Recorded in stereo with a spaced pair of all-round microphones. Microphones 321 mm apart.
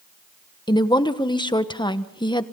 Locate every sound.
0.7 s a woman speaking: 15° left (ahead or behind), 1.1 m